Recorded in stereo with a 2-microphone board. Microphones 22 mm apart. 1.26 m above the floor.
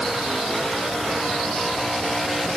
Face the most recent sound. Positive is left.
No sound to turn to.